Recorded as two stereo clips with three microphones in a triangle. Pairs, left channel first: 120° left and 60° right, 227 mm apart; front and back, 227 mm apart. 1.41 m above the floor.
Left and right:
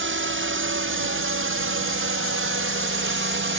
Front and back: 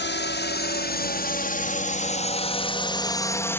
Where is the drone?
35° right; by 3.6 s 80° right.